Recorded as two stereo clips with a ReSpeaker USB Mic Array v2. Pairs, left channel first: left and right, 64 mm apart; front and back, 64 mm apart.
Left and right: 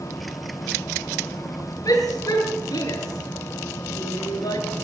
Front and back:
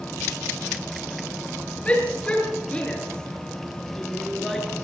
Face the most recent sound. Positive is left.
turn(degrees=85)